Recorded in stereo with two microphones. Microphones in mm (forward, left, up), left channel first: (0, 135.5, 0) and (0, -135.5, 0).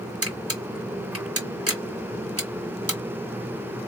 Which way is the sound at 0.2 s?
60° right (ahead or behind).